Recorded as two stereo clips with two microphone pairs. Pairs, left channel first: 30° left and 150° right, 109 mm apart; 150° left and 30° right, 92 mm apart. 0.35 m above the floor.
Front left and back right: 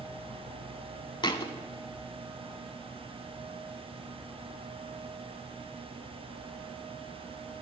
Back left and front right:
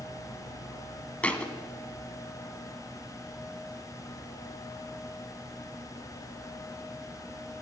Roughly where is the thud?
Left.